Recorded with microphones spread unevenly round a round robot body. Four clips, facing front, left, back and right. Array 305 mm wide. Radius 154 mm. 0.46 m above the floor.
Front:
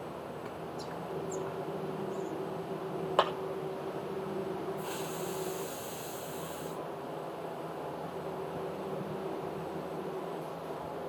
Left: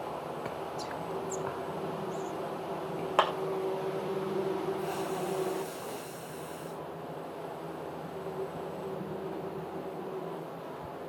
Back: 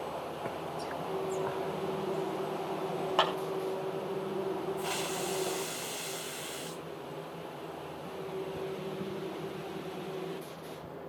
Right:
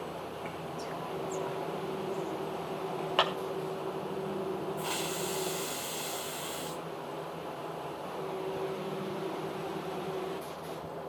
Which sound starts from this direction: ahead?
A clap, at 3.2 s.